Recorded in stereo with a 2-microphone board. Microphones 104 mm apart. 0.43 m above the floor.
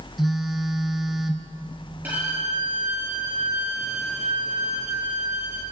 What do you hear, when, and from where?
0.2 s a phone buzzing: centre (ahead or behind), 2 m
2.0 s a violin: 15° right (ahead or behind), 9.5 m